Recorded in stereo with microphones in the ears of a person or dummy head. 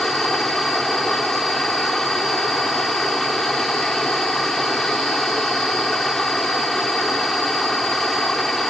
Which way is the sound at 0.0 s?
Centre (ahead or behind).